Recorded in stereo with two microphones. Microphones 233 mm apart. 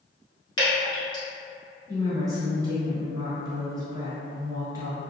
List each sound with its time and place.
0.6 s dripping: 20° left (ahead or behind), 1.5 m
1.9 s a woman speaking: 15° right (ahead or behind), 1.1 m